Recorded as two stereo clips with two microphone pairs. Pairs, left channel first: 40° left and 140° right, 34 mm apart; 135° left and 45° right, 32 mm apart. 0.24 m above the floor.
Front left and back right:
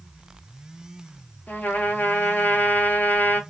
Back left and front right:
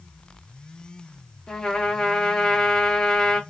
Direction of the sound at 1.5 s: 60° left.